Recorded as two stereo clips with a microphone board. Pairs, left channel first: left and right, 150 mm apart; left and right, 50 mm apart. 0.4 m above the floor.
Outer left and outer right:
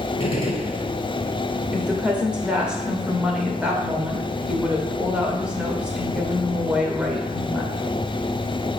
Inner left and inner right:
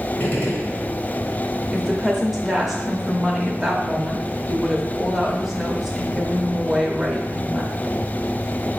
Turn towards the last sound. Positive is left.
turn(degrees=-5)  # may be behind; listen again after turning